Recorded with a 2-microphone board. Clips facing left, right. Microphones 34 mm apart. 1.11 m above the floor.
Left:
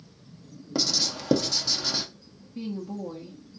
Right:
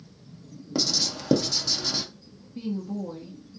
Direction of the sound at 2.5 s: 5° left (ahead or behind).